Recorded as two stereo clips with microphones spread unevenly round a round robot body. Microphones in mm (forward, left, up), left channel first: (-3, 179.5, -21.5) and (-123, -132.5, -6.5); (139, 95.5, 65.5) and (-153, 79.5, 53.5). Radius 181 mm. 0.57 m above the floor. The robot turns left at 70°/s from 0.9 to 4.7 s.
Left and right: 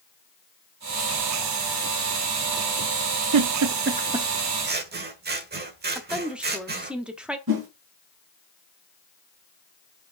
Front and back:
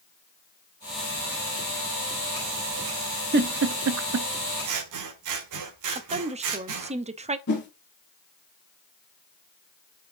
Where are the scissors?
165° right, 1.3 m; by 7.0 s 170° right, 1.3 m.